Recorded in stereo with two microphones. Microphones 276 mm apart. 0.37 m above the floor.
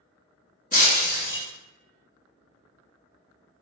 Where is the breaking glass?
30° left (ahead or behind), 0.5 m.